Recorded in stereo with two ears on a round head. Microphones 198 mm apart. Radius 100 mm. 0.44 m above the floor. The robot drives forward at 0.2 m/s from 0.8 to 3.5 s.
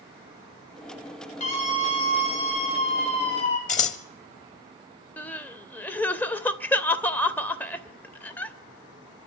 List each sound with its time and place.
1.4 s a scream: 35° left (ahead or behind), 2 m; by 3.6 s 30° left (ahead or behind), 2.5 m
3.7 s scissors: 30° left (ahead or behind), 1.0 m
5.2 s crying: 10° left (ahead or behind), 0.9 m